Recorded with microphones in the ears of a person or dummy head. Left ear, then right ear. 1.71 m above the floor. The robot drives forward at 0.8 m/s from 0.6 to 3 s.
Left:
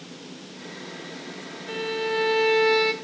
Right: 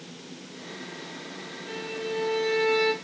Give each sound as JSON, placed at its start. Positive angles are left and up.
{"t": 1.7, "sound": "a violin", "side_deg": 15, "distance_m": 0.7}